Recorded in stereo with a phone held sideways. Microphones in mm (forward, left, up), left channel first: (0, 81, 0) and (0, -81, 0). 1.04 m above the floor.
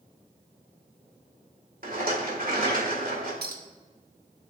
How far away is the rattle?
About 2.5 m.